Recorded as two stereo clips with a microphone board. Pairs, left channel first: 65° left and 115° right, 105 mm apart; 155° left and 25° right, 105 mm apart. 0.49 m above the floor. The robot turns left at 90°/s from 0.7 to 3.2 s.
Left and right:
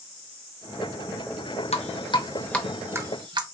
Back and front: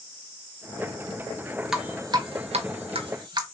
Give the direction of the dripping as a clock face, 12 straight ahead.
10 o'clock.